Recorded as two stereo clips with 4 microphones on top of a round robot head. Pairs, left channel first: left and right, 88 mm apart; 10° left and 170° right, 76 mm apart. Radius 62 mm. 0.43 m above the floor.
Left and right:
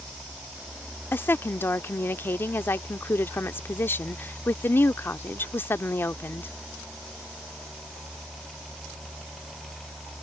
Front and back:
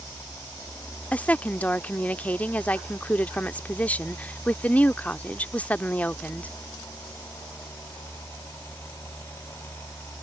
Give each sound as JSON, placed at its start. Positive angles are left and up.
{"t": 1.1, "sound": "a woman speaking", "azimuth_deg": 55}